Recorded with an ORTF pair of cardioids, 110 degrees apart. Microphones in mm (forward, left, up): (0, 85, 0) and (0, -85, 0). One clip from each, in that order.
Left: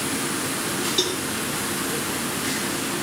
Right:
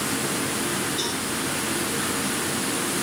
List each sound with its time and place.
1.0 s a cowbell: 65° left, 3 m